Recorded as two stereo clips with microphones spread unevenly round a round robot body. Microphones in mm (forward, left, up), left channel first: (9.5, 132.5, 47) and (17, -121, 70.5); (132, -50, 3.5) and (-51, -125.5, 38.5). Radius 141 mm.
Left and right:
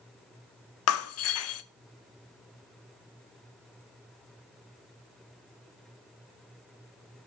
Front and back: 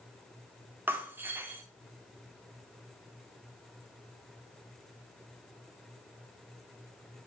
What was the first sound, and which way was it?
Breaking glass, 115° left.